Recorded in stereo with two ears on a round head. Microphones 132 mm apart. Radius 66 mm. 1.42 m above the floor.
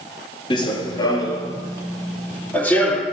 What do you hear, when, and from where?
0.5 s running footsteps: 35° left (ahead or behind), 1.7 m; by 3.0 s 10° left (ahead or behind), 3 m